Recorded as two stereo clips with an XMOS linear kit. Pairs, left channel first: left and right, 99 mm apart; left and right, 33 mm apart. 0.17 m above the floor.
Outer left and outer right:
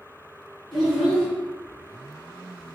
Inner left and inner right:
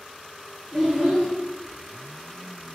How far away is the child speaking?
About 1.7 m.